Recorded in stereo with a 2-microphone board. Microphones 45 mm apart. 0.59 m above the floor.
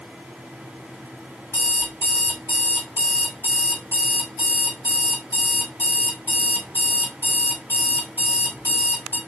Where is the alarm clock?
60° left (ahead or behind), 1.6 m.